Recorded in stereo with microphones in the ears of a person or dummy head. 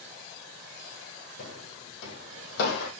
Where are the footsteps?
65° left (ahead or behind), 3.5 m; by 2.9 s 60° left (ahead or behind), 3 m.